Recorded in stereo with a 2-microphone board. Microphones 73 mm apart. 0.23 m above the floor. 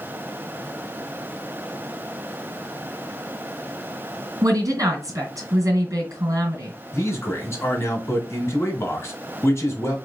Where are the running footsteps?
No running footsteps in this recording.